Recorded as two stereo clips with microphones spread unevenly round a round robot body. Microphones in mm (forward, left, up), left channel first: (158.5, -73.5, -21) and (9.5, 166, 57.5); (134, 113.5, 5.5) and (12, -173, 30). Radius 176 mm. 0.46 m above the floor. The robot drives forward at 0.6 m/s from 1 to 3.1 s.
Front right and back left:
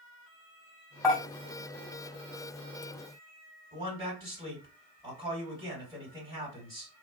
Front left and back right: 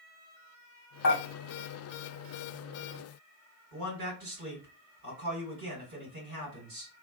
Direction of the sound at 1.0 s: 20° left.